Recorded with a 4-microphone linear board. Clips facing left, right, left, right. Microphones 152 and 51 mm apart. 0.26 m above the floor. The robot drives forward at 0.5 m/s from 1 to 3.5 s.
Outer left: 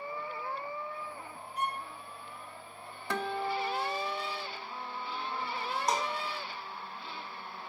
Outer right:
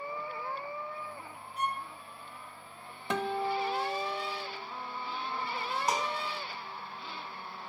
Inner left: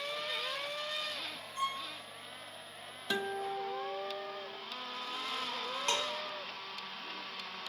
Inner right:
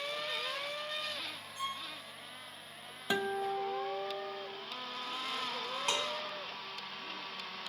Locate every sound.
1.6 s a violin: 45° left (ahead or behind), 4 m
3.1 s a guitar: 20° right (ahead or behind), 0.8 m
5.9 s dishes clattering: 5° right (ahead or behind), 1.7 m